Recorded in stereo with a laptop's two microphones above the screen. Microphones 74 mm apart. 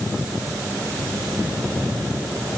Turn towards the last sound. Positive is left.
No sound to turn to.